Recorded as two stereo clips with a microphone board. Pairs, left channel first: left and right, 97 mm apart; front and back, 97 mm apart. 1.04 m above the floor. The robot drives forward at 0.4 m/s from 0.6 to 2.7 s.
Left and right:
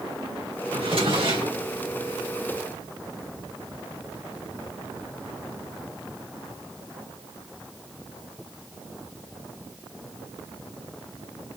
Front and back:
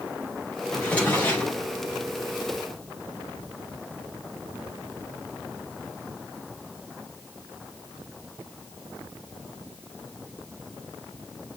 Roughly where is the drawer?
Right.